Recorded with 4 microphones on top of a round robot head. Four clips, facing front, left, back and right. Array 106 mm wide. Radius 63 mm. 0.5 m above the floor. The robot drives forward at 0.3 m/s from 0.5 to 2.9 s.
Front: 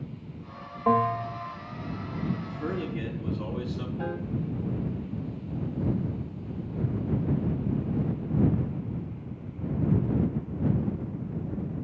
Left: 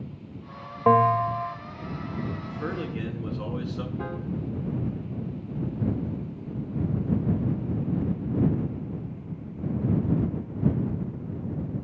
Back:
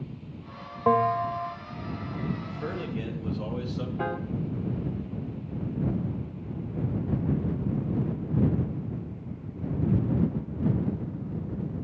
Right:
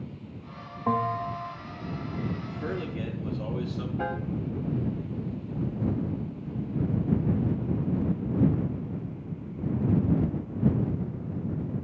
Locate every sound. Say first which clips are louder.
0.9 s a bell: left 8 dB, back 1 dB; 110° left, 1.4 m; by 1.6 s 115° left, 1.5 m
2.4 s a man speaking: left 1 dB, front 2 dB; 100° left, 6 m
4.0 s a piano: right 2 dB, back 3 dB; 155° right, 1.1 m